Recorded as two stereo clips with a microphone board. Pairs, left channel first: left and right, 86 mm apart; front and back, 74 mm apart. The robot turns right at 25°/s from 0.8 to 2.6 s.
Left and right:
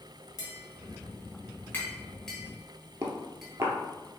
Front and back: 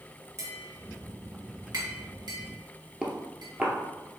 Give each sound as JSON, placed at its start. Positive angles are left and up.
{"t": 0.4, "sound": "tapping", "azimuth_deg": 135, "distance_m": 1.4}
{"t": 3.0, "sound": "footsteps", "azimuth_deg": -115, "distance_m": 1.1}